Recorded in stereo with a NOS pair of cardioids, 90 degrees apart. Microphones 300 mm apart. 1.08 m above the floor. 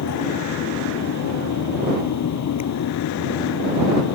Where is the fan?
65° left.